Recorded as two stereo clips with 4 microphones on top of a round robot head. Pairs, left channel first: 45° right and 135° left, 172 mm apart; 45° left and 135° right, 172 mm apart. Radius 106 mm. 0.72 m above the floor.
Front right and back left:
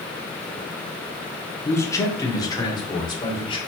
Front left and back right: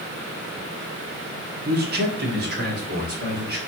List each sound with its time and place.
1.6 s a man speaking: 120° right, 1.7 m; by 3.6 s 105° right, 3 m